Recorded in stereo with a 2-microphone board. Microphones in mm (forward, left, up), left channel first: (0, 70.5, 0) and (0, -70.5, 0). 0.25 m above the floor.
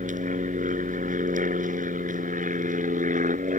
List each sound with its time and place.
0.0 s an aircraft: 65° right (ahead or behind)